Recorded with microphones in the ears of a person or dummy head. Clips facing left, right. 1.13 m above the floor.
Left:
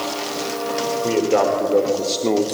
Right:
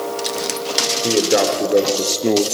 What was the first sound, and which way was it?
A man speaking, 20° right (ahead or behind).